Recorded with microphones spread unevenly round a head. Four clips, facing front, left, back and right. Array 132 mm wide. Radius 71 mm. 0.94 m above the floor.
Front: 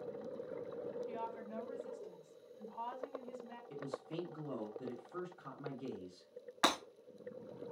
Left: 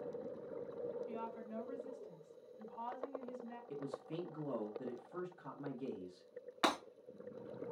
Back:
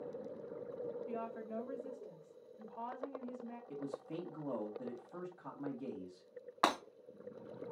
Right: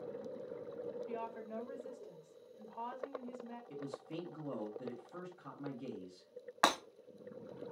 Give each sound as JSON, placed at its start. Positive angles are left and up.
{"t": 1.1, "sound": "a woman speaking", "azimuth_deg": -145, "distance_m": 2.0}
{"t": 3.7, "sound": "a man speaking", "azimuth_deg": 170, "distance_m": 1.6}
{"t": 6.6, "sound": "breaking glass", "azimuth_deg": -130, "distance_m": 1.6}